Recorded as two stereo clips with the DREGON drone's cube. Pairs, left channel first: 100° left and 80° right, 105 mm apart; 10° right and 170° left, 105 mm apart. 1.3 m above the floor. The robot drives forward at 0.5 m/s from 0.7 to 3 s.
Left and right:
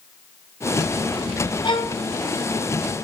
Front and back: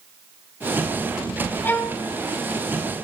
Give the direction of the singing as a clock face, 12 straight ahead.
No singing in this recording.